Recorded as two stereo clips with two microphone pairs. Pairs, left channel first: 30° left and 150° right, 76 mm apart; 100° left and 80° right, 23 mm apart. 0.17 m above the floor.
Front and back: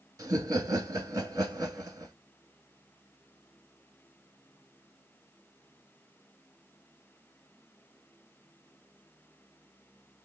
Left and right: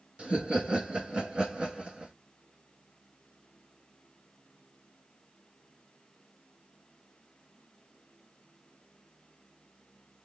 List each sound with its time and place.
0.2 s laughter: 110° right, 2 m